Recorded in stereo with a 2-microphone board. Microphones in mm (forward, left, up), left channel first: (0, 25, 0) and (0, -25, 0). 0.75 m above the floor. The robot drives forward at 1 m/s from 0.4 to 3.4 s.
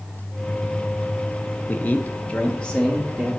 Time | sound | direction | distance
1.7 | a man speaking | 35° left (ahead or behind) | 0.7 m